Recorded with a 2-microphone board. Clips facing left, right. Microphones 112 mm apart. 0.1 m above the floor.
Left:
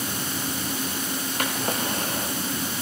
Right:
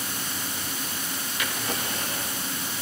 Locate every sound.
1.4 s a drawer: 50° left (ahead or behind), 6 m